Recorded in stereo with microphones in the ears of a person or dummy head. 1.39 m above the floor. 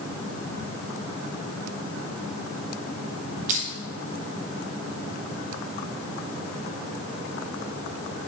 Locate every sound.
3.5 s crushing: 45° right (ahead or behind), 1.3 m